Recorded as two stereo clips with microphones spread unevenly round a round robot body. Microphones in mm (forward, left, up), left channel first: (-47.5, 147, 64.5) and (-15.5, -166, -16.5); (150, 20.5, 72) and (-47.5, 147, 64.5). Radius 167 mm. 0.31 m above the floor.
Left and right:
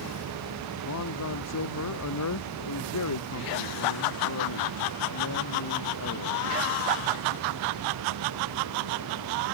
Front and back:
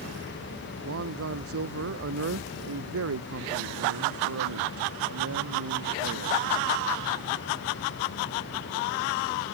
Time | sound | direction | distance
0.8 | a man speaking | 130° left | ?